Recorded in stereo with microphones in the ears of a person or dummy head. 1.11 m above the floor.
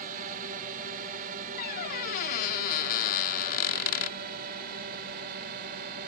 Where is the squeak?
55° left (ahead or behind).